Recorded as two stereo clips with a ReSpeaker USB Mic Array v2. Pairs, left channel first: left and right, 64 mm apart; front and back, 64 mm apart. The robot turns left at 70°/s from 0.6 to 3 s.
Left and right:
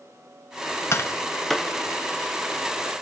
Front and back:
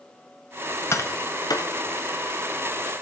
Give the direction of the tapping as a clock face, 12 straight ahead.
11 o'clock.